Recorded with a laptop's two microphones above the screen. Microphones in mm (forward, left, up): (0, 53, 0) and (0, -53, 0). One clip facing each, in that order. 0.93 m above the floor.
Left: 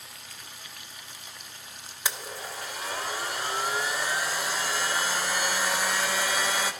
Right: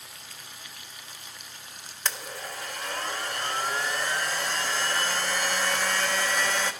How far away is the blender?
About 0.8 m.